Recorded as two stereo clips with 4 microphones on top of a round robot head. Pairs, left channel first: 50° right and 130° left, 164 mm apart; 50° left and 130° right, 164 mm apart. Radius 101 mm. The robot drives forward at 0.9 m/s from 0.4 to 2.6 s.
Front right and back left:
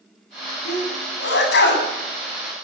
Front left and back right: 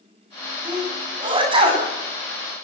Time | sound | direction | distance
0.7 | a sneeze | 65° right | 9.5 m